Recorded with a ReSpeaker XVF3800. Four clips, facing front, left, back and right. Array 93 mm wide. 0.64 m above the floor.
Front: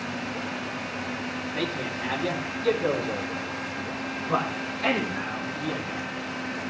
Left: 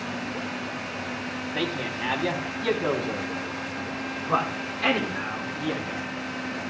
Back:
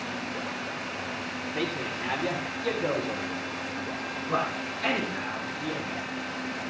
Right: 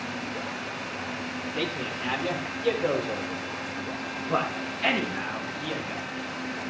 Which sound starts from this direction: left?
A man speaking, at 1.6 s.